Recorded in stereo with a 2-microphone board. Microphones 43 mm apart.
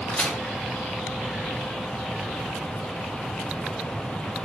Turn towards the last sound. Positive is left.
turn(degrees=15)  # may be behind; listen again after turning